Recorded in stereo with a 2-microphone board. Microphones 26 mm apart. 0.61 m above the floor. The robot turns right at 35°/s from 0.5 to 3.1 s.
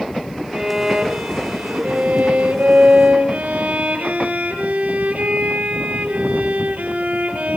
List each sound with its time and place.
0.5 s a violin: 160° right, 6.5 m; by 7.6 s 70° right, 6.5 m